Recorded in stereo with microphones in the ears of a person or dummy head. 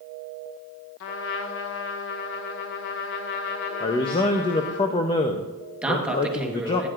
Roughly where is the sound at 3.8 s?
Left.